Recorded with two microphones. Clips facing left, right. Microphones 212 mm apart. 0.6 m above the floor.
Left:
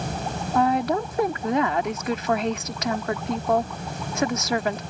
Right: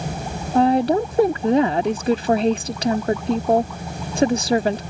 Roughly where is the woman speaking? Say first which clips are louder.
Right 6 dB; right.